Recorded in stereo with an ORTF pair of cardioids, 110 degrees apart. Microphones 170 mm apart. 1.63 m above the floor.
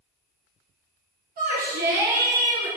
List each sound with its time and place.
1.4 s a shout: 60° right, 1.5 m